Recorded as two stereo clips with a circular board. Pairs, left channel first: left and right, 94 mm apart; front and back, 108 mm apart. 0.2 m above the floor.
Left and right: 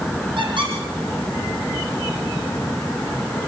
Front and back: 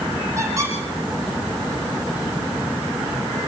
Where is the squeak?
120° right, 5.5 m.